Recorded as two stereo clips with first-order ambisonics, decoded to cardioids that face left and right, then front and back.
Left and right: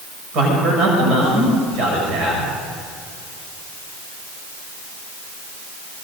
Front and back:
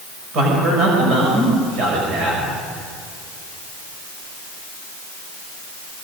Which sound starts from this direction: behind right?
A man speaking, at 0.3 s.